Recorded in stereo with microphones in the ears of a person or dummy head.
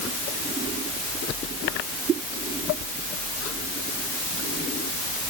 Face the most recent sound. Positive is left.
No sound to turn to.